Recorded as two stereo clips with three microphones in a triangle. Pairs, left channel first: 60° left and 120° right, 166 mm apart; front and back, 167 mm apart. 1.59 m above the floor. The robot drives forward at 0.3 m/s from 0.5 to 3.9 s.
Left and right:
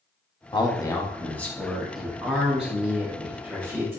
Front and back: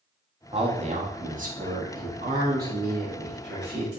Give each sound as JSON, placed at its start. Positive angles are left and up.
{"t": 0.5, "sound": "a man speaking", "azimuth_deg": 125, "distance_m": 0.5}